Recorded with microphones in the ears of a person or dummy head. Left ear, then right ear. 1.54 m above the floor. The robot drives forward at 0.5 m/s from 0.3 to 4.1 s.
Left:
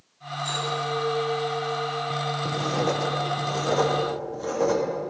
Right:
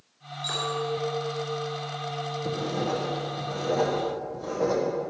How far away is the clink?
About 3.5 m.